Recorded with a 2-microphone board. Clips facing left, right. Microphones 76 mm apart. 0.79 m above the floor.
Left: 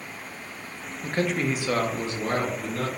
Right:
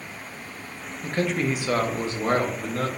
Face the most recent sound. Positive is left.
turn(degrees=-55)  # may be behind; listen again after turning